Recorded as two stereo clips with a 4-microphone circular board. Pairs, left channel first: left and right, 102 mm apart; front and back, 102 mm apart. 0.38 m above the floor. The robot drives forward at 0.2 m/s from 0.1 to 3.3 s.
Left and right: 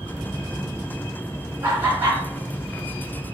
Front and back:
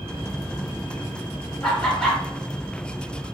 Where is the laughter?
80° right, 0.9 m; by 2.2 s 100° right, 0.9 m.